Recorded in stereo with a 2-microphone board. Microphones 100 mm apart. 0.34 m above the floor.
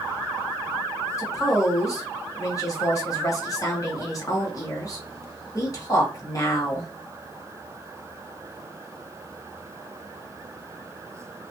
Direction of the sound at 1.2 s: 35° left (ahead or behind).